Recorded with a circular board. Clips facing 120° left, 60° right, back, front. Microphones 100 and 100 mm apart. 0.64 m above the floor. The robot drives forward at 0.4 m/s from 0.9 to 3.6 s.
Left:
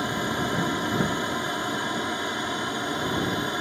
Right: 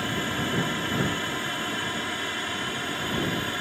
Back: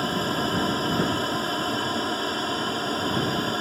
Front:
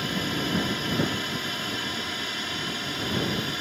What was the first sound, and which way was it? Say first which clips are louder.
An aircraft: left 2 dB, back 4 dB; straight behind.